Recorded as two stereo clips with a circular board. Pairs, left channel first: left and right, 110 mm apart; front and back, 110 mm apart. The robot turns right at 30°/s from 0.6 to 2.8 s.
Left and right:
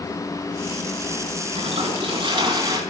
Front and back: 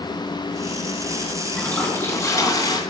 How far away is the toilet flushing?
About 2.5 m.